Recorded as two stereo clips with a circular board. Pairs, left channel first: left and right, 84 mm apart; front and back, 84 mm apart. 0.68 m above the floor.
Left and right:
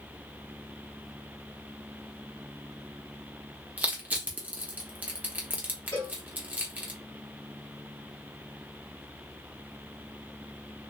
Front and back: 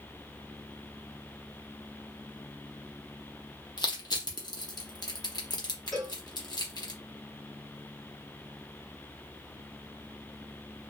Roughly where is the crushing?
Ahead right.